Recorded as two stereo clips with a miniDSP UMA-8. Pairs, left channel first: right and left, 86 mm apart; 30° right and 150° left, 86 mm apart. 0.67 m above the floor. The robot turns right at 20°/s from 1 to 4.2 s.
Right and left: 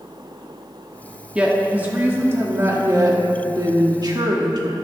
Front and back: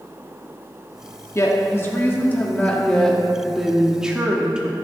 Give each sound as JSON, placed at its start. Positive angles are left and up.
{"t": 1.4, "sound": "a woman speaking", "azimuth_deg": 15, "distance_m": 1.0}